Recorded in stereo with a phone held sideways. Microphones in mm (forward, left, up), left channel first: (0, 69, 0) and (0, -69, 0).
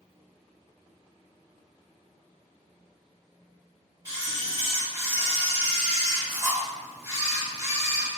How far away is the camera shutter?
About 1.4 m.